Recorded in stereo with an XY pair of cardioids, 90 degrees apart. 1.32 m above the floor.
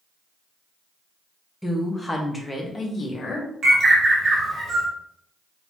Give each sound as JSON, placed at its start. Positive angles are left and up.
{"t": 1.6, "sound": "a woman speaking", "azimuth_deg": 0, "distance_m": 1.2}
{"t": 3.6, "sound": "a bird", "azimuth_deg": -55, "distance_m": 1.0}